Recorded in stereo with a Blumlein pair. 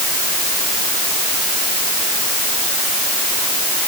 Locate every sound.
Only background noise.